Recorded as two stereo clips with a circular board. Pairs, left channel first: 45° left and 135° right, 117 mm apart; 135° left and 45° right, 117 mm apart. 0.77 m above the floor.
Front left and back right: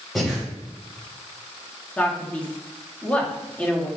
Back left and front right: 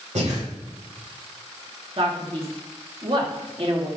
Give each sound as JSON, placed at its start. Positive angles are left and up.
{"t": 0.1, "sound": "breathing", "azimuth_deg": -45, "distance_m": 3.0}
{"t": 2.0, "sound": "a man speaking", "azimuth_deg": -30, "distance_m": 1.7}